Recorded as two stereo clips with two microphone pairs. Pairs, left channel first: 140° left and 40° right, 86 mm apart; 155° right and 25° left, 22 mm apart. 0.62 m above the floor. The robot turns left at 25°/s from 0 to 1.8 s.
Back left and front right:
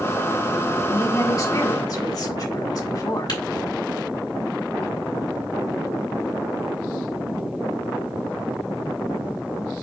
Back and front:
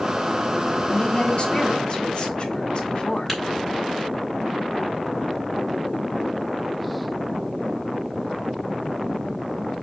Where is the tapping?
120° left, 2.5 m.